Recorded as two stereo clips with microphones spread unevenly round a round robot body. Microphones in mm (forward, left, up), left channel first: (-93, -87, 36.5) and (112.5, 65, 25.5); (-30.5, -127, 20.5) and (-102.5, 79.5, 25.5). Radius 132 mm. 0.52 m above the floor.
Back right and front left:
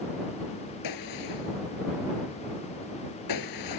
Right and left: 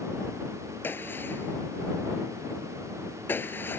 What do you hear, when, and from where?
0.8 s a gunshot: 150° right